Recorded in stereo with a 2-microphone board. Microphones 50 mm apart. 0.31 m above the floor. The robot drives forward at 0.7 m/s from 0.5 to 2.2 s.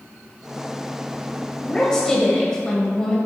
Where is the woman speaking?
15° left (ahead or behind), 1.0 m.